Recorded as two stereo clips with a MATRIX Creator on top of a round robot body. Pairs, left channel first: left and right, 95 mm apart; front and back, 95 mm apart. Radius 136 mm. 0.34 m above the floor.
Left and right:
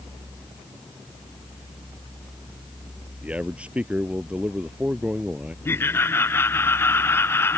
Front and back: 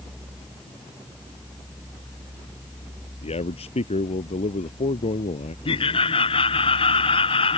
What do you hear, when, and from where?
3.2 s a man speaking: 10° right
5.7 s laughter: 25° left